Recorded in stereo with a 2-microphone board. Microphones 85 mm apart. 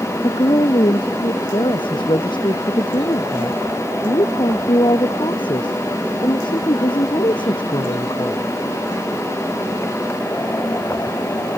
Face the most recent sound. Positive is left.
turn(degrees=75)  # may be behind; listen again after turning